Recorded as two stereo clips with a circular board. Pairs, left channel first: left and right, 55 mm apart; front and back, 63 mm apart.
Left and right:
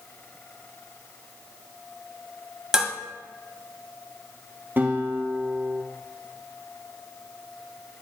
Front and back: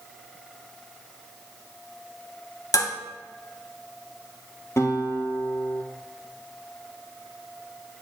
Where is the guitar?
40° right, 2 m.